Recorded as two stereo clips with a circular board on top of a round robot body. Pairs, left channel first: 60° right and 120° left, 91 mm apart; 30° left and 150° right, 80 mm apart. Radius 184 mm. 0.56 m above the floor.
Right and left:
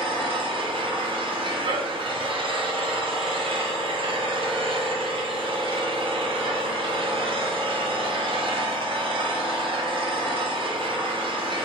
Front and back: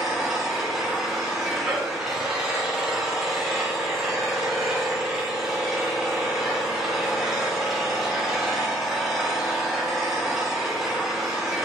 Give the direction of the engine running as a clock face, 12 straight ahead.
8 o'clock.